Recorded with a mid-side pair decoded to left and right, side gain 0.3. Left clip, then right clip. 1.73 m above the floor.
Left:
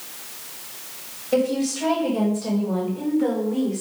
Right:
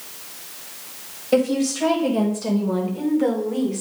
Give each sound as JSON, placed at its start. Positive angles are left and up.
{"t": 1.3, "sound": "a woman speaking", "azimuth_deg": -55, "distance_m": 3.5}